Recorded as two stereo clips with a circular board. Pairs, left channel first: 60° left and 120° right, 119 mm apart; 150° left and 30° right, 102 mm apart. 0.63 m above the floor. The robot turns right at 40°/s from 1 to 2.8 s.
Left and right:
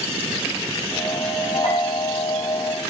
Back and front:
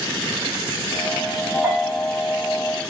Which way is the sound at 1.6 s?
35° left.